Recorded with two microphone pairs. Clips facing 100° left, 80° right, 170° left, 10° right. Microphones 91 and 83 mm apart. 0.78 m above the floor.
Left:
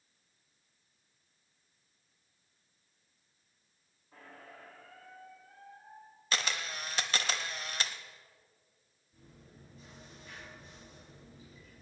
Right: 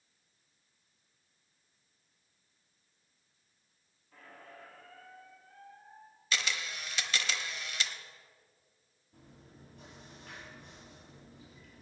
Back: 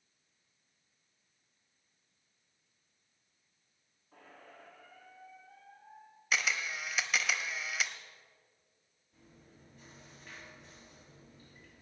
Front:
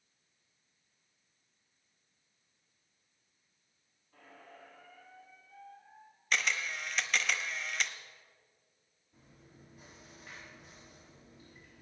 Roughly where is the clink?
I don't hear a clink.